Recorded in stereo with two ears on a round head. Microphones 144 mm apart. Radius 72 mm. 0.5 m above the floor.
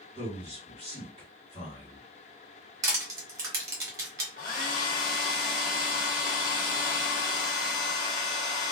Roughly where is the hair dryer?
Left.